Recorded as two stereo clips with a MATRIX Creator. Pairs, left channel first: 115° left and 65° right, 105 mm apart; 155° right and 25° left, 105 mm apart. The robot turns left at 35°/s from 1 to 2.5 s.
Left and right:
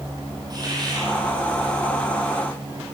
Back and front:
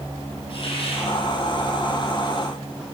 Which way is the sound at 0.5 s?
120° right.